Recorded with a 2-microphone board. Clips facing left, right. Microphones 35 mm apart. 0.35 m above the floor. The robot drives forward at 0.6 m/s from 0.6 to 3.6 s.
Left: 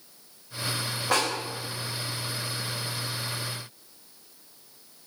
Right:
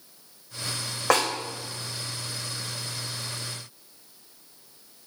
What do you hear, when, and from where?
1.1 s a snare drum: 85° right, 2.5 m